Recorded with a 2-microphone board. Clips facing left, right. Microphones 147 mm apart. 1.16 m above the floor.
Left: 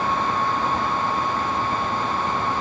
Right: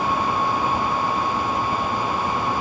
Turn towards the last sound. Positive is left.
No sound to turn to.